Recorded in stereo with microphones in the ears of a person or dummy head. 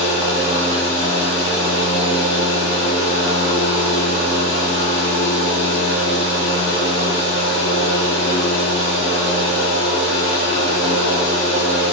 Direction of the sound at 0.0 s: 65° right (ahead or behind).